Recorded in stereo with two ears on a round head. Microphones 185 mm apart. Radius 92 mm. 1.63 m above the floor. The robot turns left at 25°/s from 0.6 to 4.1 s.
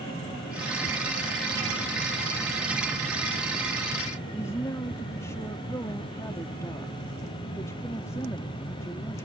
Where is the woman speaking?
15° left (ahead or behind).